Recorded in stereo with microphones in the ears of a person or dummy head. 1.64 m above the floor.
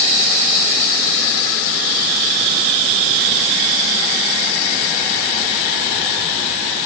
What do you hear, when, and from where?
Only background noise.